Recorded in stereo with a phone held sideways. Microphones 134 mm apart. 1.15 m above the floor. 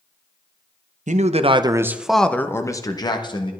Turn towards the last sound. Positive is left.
turn(degrees=35)  # may be behind; listen again after turning